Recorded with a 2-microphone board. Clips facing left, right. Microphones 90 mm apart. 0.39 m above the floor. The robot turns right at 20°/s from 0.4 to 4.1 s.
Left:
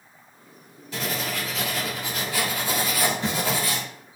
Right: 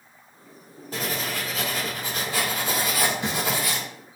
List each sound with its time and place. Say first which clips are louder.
0.9 s writing: even; 75° right, 1.9 m; by 3.8 s 15° right, 1.9 m